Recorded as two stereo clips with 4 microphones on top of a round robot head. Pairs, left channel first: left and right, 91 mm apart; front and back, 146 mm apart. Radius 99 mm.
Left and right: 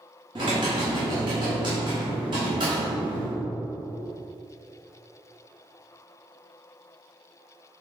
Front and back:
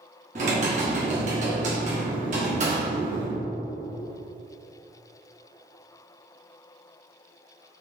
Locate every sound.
0.3 s typing on a keyboard: 140° right, 1.3 m